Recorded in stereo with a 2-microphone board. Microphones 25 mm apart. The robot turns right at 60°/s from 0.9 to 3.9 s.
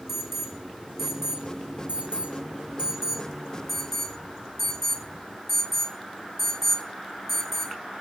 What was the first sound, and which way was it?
An alarm, 15° right (ahead or behind).